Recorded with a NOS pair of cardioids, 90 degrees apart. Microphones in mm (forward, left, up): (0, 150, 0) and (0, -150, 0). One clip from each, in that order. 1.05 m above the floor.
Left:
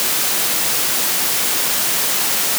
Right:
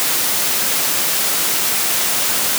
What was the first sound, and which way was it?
Only background noise.